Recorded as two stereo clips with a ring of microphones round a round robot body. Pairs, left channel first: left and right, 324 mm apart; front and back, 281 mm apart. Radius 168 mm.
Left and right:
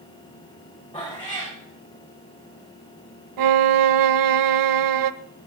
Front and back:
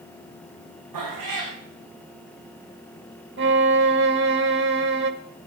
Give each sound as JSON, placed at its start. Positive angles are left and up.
{"t": 0.9, "sound": "a cat meowing", "azimuth_deg": 170, "distance_m": 10.0}
{"t": 3.4, "sound": "a violin", "azimuth_deg": -120, "distance_m": 0.8}